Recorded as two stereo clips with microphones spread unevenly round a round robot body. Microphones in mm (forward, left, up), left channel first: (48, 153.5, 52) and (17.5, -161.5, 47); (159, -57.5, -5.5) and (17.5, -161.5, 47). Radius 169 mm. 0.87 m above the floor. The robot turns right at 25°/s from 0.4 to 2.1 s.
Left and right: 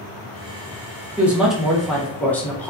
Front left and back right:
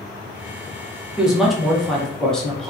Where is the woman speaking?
20° right, 0.8 m; by 2.7 s 5° left, 0.8 m.